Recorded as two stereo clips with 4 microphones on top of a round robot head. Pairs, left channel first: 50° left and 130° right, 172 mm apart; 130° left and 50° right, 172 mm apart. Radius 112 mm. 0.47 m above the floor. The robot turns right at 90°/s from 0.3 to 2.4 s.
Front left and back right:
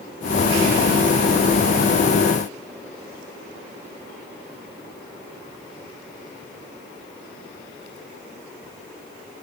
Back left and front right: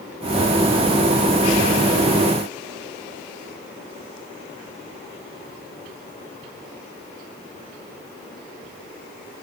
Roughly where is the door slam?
No door slam in this recording.